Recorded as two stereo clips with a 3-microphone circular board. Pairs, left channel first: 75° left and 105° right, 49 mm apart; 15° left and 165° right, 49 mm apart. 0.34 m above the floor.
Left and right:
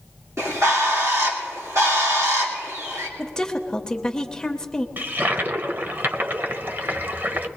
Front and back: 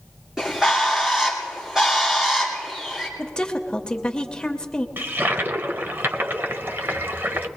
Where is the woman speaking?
35° left, 0.9 m.